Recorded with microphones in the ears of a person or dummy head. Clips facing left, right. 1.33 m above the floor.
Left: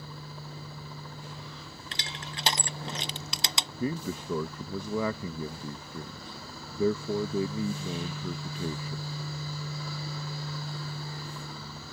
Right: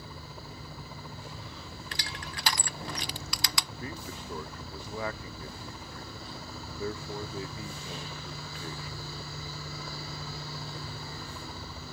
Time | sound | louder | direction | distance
0.0 | a helicopter | left 1 dB | 10° right (ahead or behind) | ?
1.9 | crushing | left 1 dB | 20° left (ahead or behind) | ?
3.8 | a man speaking | left 9 dB | 70° left (ahead or behind) | ?